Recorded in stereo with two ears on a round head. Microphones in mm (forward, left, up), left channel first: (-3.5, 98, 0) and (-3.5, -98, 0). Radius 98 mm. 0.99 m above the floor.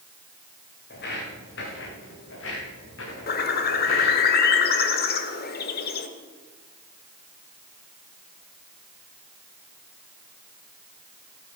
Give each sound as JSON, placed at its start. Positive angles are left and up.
{"t": 0.9, "sound": "footsteps", "side_deg": 50, "distance_m": 4.5}
{"t": 3.3, "sound": "a bird", "side_deg": 45, "distance_m": 1.2}